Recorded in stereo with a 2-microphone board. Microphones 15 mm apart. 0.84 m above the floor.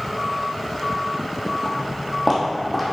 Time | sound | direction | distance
1.6 | footsteps | centre (ahead or behind) | 1.7 m